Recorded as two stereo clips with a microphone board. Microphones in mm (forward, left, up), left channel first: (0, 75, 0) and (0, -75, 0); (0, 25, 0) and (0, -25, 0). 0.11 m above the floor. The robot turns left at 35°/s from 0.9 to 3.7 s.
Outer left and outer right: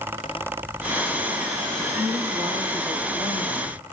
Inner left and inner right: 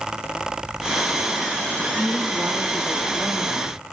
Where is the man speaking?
165° right, 3 m; by 3.9 s 125° left, 3 m.